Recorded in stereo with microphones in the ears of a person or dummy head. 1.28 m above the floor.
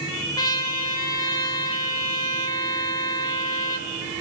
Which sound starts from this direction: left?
A trumpet, at 0.4 s.